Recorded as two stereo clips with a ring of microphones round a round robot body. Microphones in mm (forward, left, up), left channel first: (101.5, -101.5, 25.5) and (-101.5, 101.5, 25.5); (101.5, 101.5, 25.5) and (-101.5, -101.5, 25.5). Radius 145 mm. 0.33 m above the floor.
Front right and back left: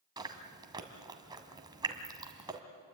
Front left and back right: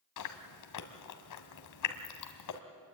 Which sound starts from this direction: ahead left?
Chewing, at 0.2 s.